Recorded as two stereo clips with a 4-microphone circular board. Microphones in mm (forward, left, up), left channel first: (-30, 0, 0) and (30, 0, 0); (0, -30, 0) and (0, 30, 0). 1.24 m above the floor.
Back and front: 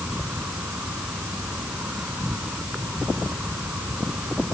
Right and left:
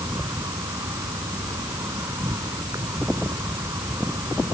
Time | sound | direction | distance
0.0 | an insect | 65° left | ?